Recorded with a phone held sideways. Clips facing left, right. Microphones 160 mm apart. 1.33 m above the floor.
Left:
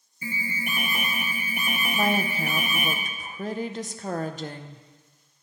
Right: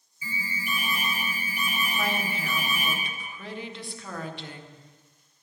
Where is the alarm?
60° left (ahead or behind), 1.0 m.